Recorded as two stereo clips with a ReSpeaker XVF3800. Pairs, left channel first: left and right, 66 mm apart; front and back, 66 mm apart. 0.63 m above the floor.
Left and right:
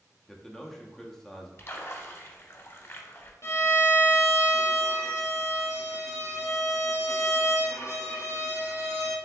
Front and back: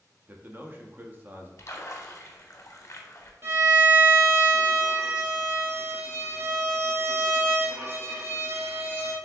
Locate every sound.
0.3 s a man speaking: 170° left, 0.6 m
1.6 s a splash: 40° left, 0.6 m
3.4 s a violin: 130° left, 1.0 m